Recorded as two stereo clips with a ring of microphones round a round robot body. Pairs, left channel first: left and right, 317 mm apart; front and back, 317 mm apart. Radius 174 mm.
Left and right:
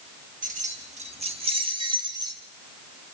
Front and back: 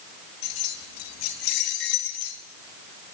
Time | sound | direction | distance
0.4 | keys jangling | 25° right | 3.5 m